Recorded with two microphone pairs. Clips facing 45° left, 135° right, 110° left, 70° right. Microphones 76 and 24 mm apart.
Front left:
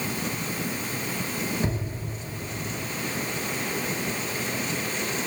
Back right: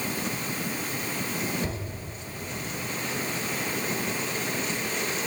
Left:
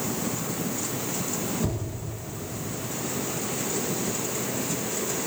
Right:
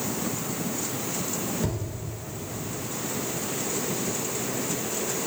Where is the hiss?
No hiss in this recording.